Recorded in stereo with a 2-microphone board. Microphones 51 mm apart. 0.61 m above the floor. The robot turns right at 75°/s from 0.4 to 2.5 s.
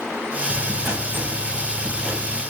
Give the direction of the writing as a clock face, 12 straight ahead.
5 o'clock.